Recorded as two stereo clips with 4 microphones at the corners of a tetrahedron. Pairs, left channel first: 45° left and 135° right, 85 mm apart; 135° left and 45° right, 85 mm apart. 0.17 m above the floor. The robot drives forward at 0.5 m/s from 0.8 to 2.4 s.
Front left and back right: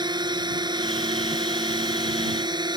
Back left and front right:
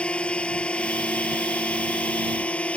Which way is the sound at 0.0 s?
150° right.